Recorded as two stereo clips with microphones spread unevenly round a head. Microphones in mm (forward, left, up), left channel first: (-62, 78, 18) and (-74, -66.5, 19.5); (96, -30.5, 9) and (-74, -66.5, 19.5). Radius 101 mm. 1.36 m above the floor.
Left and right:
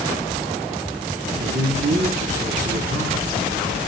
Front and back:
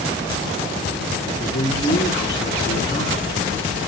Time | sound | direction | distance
1.4 | a man speaking | 55° right | 3.5 m